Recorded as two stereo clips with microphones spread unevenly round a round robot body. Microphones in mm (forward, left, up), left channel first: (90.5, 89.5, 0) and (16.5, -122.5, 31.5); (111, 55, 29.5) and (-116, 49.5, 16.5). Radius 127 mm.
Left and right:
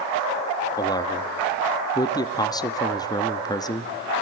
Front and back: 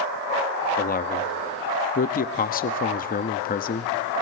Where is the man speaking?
25° left, 0.9 m.